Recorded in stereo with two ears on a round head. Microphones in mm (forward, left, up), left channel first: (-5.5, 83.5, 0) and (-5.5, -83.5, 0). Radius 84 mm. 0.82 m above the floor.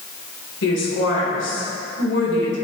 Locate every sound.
0.6 s a woman speaking: 70° left (ahead or behind), 2.5 m